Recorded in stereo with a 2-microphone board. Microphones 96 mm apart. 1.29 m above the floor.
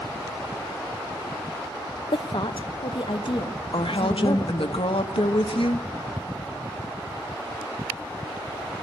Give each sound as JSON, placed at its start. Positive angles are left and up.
{"t": 2.1, "sound": "a woman speaking", "side_deg": 65, "distance_m": 0.7}
{"t": 3.7, "sound": "a woman speaking", "side_deg": 70, "distance_m": 1.1}